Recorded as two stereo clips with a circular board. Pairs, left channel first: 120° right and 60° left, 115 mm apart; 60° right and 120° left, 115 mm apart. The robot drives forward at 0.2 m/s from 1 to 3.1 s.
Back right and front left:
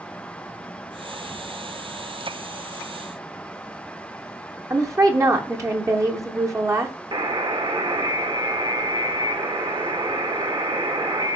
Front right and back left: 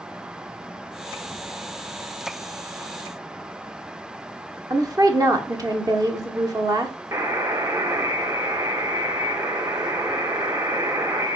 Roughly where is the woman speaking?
Left.